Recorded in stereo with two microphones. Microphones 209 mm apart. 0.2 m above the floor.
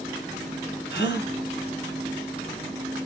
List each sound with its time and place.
0.9 s a gasp: 55° left (ahead or behind), 2 m